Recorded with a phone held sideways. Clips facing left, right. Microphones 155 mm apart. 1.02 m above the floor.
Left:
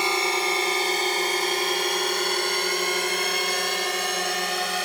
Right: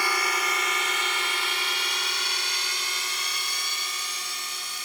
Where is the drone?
25° left (ahead or behind); by 4.8 s 75° left (ahead or behind).